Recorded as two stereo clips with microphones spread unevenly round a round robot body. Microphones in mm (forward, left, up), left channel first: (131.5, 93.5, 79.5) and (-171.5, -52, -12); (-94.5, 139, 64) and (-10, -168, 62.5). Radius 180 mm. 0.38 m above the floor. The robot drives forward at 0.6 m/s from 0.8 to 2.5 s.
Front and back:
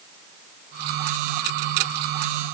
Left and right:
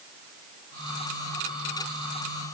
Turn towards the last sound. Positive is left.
No sound to turn to.